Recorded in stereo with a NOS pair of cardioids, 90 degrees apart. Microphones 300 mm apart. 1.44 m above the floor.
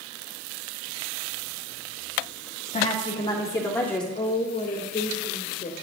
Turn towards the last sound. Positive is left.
turn(degrees=25)